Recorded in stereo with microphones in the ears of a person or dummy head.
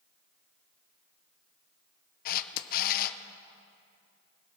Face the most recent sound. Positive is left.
turn(degrees=55)  # may be behind; listen again after turning